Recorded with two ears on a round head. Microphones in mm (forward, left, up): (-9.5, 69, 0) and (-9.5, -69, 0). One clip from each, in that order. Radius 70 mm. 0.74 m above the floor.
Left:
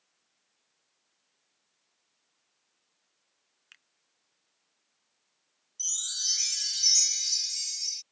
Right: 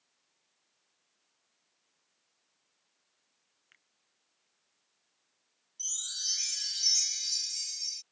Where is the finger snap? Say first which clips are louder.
Left 9 dB; 75° left (ahead or behind).